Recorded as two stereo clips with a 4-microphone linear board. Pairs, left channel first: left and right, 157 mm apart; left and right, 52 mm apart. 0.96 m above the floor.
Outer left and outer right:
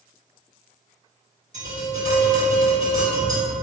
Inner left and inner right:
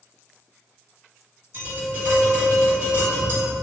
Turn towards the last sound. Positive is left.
turn(degrees=-50)  # may be behind; listen again after turning